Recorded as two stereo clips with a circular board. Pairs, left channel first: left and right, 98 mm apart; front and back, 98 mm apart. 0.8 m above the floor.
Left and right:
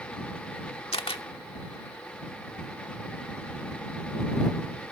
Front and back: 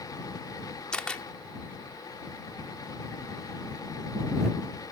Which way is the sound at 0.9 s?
80° left.